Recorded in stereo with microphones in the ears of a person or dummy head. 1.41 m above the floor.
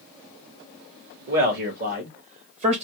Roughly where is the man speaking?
Right.